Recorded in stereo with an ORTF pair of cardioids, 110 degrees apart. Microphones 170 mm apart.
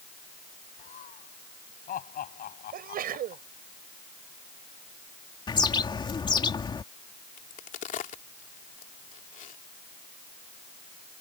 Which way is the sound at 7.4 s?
50° left.